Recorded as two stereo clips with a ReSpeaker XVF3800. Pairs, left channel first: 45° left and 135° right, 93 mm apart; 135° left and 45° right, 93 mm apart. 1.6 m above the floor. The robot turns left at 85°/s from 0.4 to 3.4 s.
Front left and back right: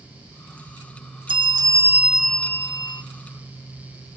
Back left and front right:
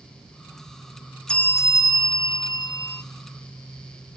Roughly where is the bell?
Behind right.